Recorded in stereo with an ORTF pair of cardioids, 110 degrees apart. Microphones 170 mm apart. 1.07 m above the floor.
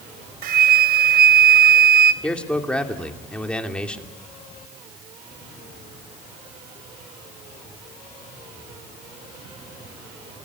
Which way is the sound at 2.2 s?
5° left.